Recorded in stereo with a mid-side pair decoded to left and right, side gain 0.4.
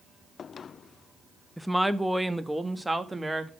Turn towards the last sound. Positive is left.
turn(degrees=-15)